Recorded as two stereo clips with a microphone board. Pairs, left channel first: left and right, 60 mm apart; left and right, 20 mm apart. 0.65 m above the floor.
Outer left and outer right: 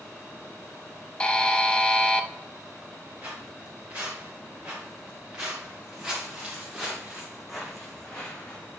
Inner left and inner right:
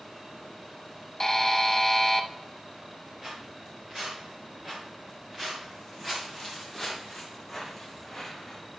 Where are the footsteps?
30° right (ahead or behind), 4.5 m; by 8.8 s 25° left (ahead or behind), 1.4 m.